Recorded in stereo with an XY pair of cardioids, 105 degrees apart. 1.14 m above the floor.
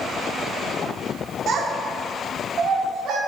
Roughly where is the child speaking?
Right.